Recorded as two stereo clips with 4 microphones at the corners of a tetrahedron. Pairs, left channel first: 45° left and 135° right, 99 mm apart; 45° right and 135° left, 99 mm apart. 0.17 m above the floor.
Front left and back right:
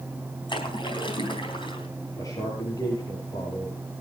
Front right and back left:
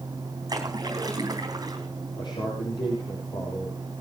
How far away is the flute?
No flute in this recording.